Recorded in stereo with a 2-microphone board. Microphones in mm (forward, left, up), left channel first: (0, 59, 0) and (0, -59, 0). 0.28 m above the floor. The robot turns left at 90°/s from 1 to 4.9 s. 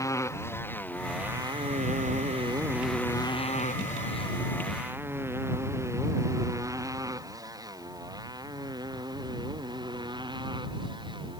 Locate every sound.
0.0 s a motorcycle: 25° left (ahead or behind); by 11.4 s 40° right (ahead or behind)